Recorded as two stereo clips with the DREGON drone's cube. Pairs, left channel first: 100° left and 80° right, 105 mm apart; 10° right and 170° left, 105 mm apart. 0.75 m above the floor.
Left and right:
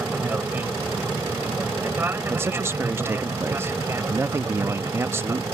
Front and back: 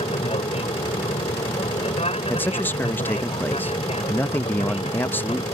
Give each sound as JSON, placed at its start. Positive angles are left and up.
{"t": 0.0, "sound": "an aircraft", "azimuth_deg": -10}
{"t": 2.3, "sound": "a man speaking", "azimuth_deg": -60}